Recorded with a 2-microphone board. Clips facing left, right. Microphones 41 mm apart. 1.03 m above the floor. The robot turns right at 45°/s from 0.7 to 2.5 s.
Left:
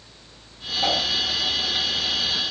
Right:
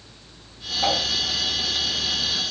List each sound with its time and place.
0.8 s a whoosh: 5° right (ahead or behind), 3 m; by 1.0 s 15° right (ahead or behind), 3 m